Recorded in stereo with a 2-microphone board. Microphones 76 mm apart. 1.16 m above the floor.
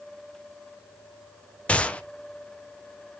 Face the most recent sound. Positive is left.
turn(degrees=15)  # may be behind; listen again after turning